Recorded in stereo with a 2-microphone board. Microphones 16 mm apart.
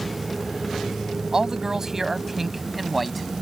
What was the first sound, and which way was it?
A man speaking, 45° right (ahead or behind).